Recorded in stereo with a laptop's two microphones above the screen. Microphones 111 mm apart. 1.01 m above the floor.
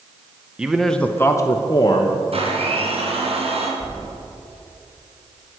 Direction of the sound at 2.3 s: 65° right (ahead or behind).